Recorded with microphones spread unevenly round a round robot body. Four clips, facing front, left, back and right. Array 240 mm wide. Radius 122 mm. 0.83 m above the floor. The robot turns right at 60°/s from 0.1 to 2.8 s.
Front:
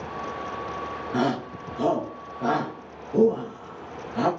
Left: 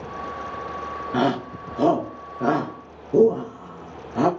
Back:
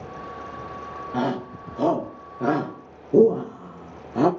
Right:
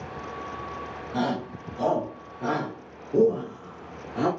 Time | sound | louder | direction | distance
1.1 | a shout | left 5 dB, even | 55° left | 1.6 m